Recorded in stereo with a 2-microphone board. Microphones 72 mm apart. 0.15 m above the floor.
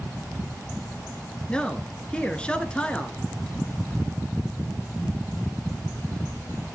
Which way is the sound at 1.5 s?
15° left (ahead or behind).